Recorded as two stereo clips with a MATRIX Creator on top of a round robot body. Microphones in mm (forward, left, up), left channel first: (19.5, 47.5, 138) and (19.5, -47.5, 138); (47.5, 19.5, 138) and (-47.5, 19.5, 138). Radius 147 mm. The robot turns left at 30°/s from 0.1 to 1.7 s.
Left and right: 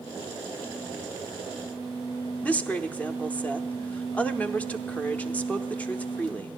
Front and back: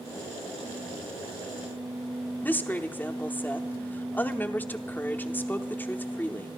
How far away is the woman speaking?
About 1.0 m.